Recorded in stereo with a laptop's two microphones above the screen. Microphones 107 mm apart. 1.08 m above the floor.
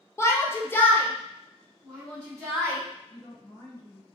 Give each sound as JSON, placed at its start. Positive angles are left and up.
{"t": 0.2, "sound": "a shout", "side_deg": 25, "distance_m": 0.6}
{"t": 3.1, "sound": "a woman speaking", "side_deg": 50, "distance_m": 1.8}